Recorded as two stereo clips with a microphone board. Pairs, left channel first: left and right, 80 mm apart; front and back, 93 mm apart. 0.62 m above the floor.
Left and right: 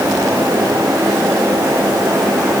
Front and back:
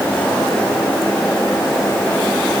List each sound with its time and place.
Only background noise.